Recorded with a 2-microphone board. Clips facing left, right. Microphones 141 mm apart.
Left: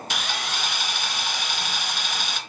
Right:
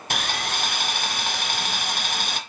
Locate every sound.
0.1 s sawing: 55° right (ahead or behind), 0.8 m